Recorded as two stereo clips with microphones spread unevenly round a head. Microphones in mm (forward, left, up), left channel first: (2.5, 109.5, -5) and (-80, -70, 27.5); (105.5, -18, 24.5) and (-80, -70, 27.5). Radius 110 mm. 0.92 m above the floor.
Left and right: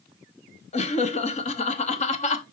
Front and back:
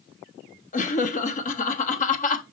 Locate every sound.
0.7 s laughter: 40° left, 0.6 m